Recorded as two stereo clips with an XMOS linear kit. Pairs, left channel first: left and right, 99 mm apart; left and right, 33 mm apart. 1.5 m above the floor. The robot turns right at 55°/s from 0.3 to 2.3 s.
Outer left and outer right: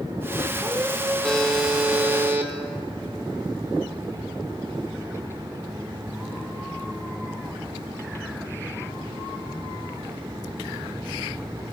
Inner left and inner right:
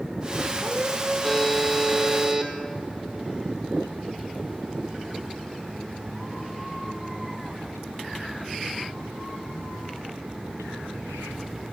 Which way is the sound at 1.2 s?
165° left.